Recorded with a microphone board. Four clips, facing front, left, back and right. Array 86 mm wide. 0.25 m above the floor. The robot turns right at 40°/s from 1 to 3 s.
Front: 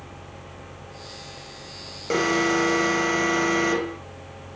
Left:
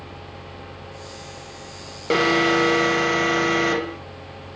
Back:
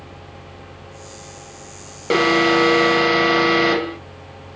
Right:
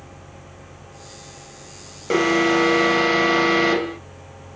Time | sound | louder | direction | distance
2.1 | an alarm | right 1 dB, back 6 dB | 155° left | 0.9 m